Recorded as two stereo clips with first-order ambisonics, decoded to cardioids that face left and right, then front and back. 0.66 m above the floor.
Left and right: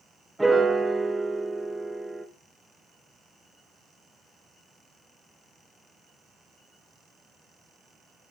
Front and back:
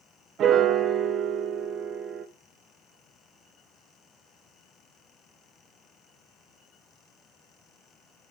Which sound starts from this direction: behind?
A piano, at 0.4 s.